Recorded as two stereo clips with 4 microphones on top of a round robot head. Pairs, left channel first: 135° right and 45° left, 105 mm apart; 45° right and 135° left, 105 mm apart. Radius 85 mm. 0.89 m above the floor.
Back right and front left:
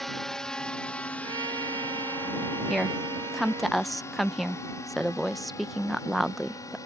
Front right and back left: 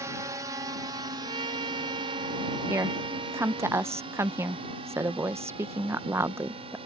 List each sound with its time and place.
0.0 s a drone: 140° left; by 6.9 s 165° left
1.2 s a trumpet: 90° left
2.7 s a woman speaking: 135° left